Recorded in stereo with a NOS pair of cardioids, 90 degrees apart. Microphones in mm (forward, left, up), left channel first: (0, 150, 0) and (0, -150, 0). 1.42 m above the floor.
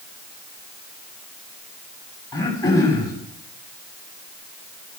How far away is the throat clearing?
About 7 m.